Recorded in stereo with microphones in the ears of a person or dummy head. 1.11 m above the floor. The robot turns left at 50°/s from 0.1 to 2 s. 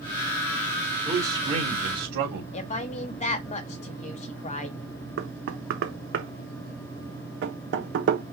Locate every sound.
1.1 s a man speaking: 10° right, 3 m; by 2.4 s 60° right, 3 m
2.5 s a woman speaking: 35° left (ahead or behind), 1.4 m
5.2 s knocking: 60° right (ahead or behind), 1.0 m